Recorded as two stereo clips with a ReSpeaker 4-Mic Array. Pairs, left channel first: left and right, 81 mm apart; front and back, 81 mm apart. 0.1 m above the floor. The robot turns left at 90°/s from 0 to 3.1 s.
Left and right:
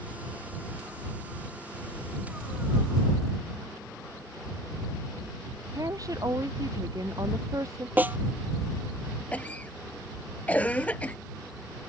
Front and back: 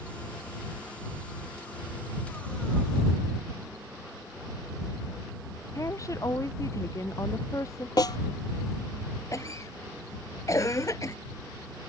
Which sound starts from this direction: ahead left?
A cough, at 9.3 s.